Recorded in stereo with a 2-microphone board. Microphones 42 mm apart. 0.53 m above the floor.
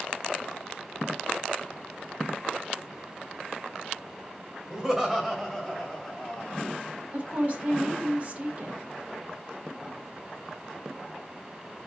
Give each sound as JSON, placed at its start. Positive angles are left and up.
{"t": 4.7, "sound": "laughter", "side_deg": -15, "distance_m": 2.5}
{"t": 7.1, "sound": "a woman speaking", "side_deg": -45, "distance_m": 1.9}